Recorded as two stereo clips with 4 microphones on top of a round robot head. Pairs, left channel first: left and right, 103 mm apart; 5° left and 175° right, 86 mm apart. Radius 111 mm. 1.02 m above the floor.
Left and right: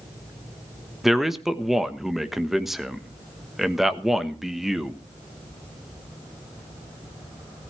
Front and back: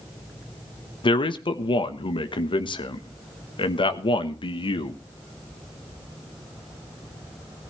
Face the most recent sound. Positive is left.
turn(degrees=-5)